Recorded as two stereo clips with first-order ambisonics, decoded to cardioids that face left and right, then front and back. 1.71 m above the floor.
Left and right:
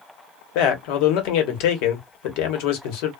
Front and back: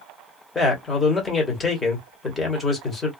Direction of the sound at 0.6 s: 80° left.